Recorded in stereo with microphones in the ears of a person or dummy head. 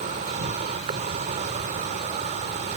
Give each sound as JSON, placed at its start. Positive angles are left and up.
{"t": 0.0, "sound": "an insect", "side_deg": -45}